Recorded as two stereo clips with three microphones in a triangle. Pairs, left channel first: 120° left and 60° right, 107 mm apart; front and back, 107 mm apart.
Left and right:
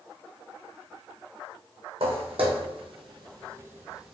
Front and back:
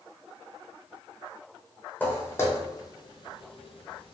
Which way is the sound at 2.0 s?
70° right.